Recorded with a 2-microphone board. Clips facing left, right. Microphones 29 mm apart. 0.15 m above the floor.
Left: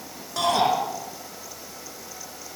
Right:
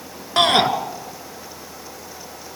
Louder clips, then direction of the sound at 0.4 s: Right 6 dB; 50° right (ahead or behind).